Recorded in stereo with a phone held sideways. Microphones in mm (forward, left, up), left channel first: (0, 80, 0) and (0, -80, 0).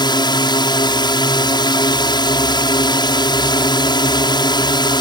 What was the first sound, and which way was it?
A drone, 25° left (ahead or behind).